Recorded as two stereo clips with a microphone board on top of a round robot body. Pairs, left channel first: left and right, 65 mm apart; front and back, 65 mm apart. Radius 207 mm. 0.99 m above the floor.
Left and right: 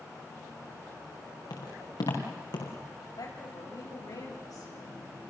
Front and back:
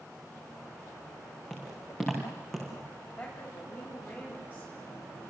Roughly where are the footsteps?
Left.